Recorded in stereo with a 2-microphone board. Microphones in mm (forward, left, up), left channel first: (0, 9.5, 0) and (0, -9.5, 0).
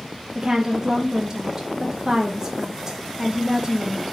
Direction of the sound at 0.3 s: 25° right (ahead or behind).